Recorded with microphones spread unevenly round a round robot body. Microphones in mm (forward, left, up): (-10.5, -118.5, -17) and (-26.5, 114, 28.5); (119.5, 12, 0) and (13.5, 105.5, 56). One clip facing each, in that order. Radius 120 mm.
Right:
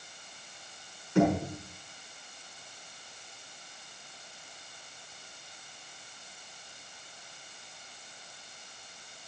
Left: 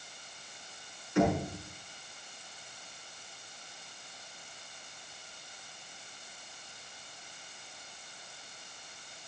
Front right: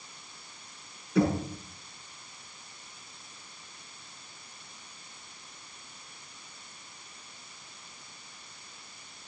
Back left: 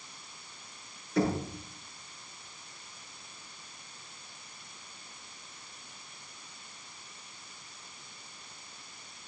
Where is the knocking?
65° right, 6 m.